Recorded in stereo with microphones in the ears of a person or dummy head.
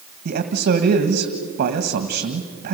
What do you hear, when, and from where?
0.2 s a man speaking: 50° right (ahead or behind), 1.8 m